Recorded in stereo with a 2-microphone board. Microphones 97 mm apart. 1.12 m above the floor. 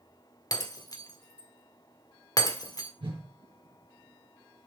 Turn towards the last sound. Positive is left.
turn(degrees=-65)  # may be behind; listen again after turning